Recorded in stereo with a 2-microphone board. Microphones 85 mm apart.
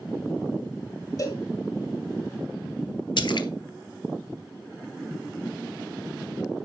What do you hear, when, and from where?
1.2 s a cowbell: 40° left (ahead or behind), 1.2 m
3.2 s a splash: 65° left (ahead or behind), 0.8 m